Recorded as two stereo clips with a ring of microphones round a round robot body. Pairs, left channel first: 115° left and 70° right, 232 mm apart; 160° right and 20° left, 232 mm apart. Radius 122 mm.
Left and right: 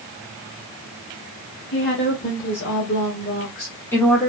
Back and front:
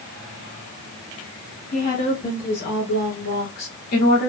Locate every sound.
1.7 s a woman speaking: 150° left, 1.8 m; by 4.3 s 155° right, 1.1 m